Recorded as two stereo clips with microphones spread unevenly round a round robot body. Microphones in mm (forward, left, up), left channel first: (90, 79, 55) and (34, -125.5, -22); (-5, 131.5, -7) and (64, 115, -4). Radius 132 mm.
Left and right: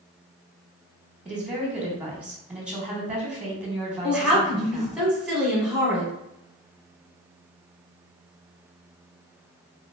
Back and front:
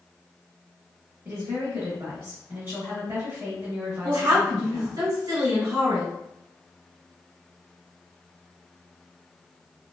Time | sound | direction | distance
1.2 | a woman speaking | 55° right | 0.9 m
4.0 | a woman speaking | 35° right | 1.5 m